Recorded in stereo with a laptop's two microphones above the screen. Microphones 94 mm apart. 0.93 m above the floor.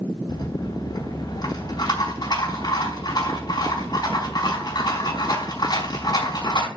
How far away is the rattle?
About 4.5 m.